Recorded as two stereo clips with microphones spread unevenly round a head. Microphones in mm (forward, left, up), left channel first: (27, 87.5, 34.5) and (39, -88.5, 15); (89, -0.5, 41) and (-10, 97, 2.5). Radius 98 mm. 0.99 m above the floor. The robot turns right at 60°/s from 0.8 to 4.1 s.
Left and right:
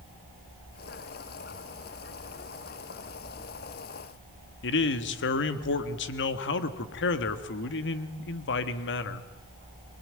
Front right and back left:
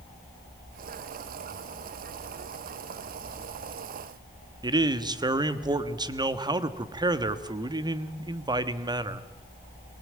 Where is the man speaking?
75° left, 1.4 m.